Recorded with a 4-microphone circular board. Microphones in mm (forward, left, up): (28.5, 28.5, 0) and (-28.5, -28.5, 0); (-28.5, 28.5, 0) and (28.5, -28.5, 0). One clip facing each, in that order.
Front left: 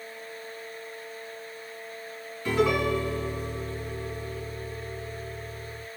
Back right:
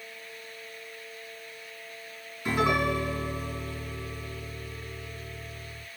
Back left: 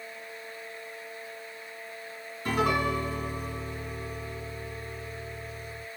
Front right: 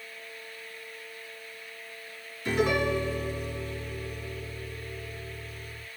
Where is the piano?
155° left, 2.5 m.